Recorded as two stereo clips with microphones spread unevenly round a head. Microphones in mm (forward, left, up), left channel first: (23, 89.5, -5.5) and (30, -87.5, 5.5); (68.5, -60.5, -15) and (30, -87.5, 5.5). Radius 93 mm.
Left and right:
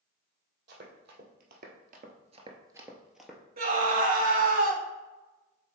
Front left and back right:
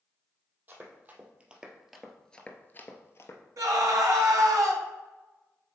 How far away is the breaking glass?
No breaking glass in this recording.